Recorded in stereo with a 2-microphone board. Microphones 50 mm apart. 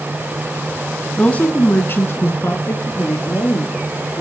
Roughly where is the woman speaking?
Left.